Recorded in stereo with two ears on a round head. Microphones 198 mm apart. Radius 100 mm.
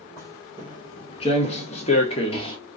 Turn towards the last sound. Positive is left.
turn(degrees=25)  # may be behind; listen again after turning